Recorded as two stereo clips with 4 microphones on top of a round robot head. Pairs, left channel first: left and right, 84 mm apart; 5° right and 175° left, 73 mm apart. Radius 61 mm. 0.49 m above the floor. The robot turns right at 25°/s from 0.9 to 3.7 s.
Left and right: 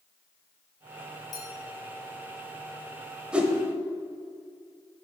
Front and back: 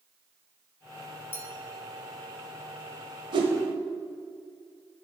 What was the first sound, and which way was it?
A clink, 50° left.